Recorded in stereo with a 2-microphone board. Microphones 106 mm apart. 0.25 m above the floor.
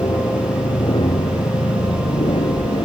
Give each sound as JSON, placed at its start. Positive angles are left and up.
{"t": 0.0, "sound": "an aircraft", "side_deg": 50}